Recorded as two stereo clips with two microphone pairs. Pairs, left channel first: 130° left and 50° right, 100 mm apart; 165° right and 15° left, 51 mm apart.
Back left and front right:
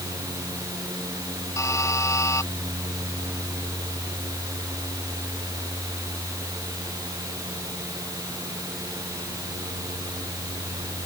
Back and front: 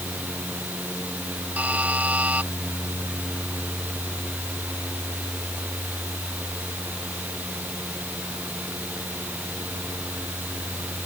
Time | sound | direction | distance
1.6 | a buzzer | 75° left | ?